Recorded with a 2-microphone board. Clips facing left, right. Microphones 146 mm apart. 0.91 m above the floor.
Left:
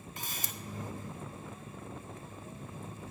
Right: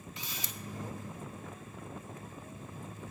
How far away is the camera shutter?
About 0.8 m.